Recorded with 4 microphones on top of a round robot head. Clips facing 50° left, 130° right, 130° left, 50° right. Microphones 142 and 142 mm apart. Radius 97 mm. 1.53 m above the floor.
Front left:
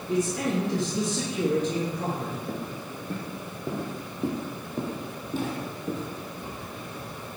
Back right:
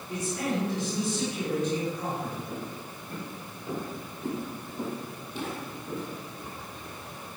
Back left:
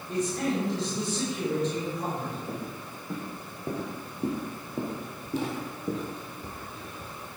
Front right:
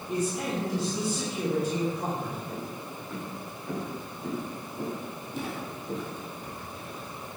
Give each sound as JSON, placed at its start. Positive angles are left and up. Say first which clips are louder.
{"t": 0.1, "sound": "a man speaking", "louder": "front left 5 dB, back left 1 dB", "azimuth_deg": 35, "distance_m": 3.0}
{"t": 2.5, "sound": "footsteps", "louder": "front left 3 dB, even", "azimuth_deg": 70, "distance_m": 5.5}